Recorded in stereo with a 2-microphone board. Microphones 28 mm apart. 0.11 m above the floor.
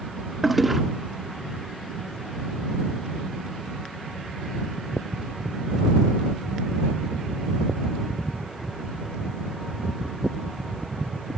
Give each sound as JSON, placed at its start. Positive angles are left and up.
{"t": 0.4, "sound": "a toilet flushing", "side_deg": -5}